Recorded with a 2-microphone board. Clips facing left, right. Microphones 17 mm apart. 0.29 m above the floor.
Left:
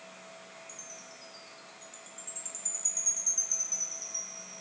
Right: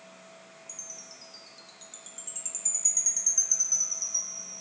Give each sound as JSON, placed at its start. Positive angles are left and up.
{"t": 0.7, "sound": "a chime", "side_deg": -35, "distance_m": 0.5}